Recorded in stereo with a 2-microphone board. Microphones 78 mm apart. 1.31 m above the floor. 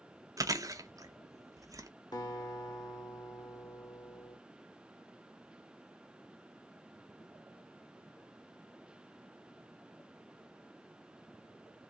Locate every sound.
0.4 s chewing: 45° right (ahead or behind), 0.6 m
2.1 s a guitar: 60° left (ahead or behind), 1.1 m